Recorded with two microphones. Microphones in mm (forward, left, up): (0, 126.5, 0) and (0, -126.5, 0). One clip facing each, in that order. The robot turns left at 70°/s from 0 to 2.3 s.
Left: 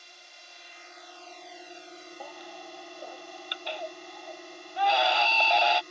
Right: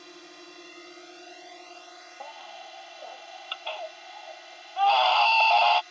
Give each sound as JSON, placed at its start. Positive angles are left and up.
{"t": 0.0, "sound": "a drone", "azimuth_deg": -75}
{"t": 2.2, "sound": "a baby crying", "side_deg": 10}